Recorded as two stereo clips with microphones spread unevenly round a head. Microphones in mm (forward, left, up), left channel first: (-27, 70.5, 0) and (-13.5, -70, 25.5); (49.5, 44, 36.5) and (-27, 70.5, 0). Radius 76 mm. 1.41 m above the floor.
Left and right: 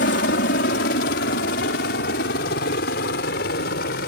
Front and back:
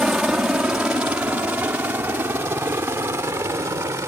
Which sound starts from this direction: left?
A helicopter, at 0.0 s.